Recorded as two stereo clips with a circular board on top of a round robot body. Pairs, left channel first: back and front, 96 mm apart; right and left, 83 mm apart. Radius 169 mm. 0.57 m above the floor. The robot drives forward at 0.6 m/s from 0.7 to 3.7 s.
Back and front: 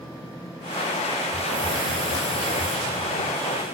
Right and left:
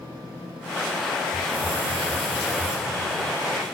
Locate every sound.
1.3 s a hiss: 100° left, 3.5 m; by 2.8 s 115° left, 4 m